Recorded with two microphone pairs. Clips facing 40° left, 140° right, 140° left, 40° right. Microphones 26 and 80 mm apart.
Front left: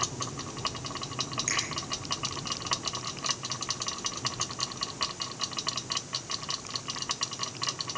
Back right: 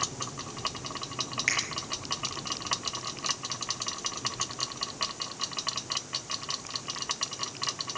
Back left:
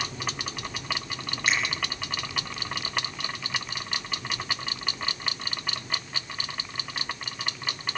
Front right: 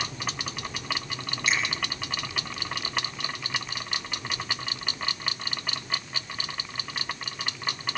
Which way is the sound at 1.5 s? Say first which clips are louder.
Back right 4 dB, back left 1 dB; 175° left.